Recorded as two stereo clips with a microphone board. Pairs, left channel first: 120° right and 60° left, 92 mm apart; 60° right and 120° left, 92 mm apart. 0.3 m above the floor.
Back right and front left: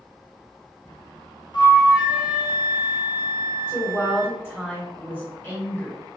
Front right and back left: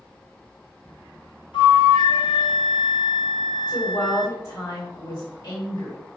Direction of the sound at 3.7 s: 60° right.